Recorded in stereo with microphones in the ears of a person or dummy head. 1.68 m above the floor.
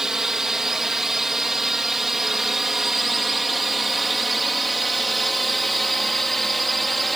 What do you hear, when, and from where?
0.0 s a drone: 5° right (ahead or behind)